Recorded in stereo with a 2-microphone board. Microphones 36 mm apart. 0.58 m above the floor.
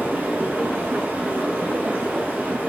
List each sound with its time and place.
0.0 s running water: 65° right (ahead or behind), 3.5 m